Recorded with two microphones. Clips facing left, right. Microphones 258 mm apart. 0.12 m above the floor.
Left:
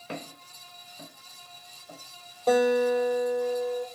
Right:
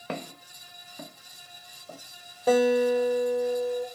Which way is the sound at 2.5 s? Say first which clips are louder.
Right 1 dB; 5° right (ahead or behind).